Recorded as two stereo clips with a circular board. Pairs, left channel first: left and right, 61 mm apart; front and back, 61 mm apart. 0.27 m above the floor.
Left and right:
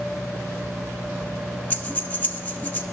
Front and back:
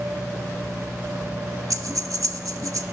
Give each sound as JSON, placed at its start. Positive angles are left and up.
{"t": 1.7, "sound": "breathing", "azimuth_deg": 155, "distance_m": 1.1}